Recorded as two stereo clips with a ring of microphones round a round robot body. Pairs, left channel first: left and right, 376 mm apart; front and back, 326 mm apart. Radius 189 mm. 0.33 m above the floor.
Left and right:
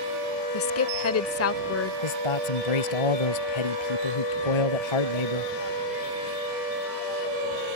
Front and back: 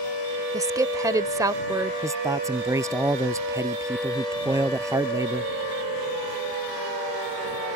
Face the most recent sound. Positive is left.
turn(degrees=100)